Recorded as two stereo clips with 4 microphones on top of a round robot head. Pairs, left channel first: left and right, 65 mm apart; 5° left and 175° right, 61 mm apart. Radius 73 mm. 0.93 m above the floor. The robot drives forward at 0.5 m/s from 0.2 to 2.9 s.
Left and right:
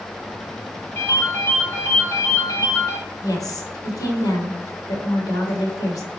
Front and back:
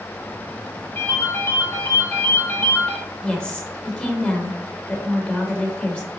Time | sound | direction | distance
0.9 | a ringtone | 40° left | 2.5 m
3.2 | a woman speaking | 70° left | 1.4 m